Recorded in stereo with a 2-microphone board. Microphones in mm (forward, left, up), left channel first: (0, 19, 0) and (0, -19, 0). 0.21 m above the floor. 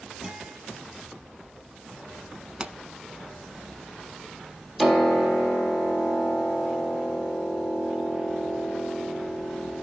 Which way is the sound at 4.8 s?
10° left (ahead or behind).